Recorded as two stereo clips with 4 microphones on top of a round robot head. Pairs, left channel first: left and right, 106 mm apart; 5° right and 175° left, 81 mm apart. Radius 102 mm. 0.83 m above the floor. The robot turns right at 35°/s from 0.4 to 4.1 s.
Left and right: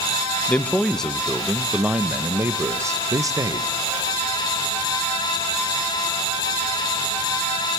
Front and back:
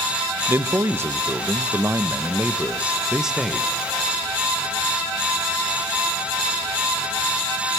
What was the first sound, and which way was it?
A man speaking, 155° left.